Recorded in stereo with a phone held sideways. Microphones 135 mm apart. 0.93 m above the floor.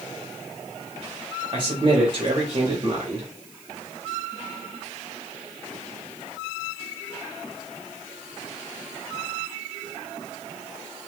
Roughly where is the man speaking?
Right.